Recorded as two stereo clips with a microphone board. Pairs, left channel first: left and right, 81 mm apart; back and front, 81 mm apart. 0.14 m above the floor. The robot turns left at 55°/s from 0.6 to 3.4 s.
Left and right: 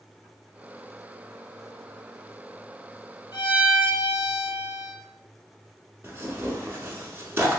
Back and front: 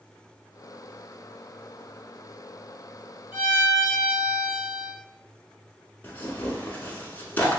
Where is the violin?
65° left, 1.1 m; by 4.9 s 60° left, 1.1 m.